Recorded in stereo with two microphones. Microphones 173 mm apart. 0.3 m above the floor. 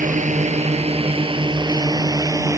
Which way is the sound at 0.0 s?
45° right (ahead or behind).